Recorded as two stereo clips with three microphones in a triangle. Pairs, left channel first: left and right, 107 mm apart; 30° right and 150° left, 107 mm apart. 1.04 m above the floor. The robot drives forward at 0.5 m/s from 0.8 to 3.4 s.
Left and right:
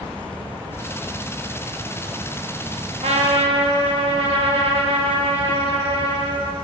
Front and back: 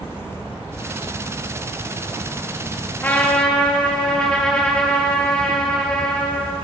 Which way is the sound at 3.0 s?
100° right.